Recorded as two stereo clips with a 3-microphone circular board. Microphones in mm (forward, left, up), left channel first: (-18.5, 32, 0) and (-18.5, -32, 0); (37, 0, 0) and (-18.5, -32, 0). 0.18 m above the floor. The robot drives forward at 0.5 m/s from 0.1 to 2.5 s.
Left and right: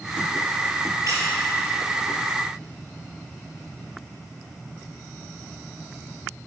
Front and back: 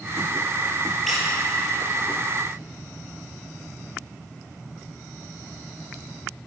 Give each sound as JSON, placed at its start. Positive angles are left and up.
{"t": 1.1, "sound": "a squeak", "azimuth_deg": -60, "distance_m": 3.0}